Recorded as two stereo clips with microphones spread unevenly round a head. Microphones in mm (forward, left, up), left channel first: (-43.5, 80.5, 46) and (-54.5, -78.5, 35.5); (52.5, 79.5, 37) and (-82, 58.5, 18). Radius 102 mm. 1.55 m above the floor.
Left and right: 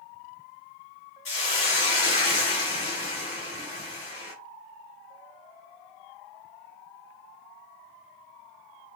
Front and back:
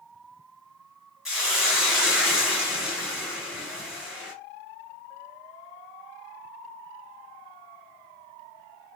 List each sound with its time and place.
1.2 s a hiss: 95° left, 1.7 m